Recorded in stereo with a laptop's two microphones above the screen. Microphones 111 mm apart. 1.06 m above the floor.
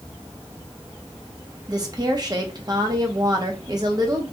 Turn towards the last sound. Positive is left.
turn(degrees=-35)  # may be behind; listen again after turning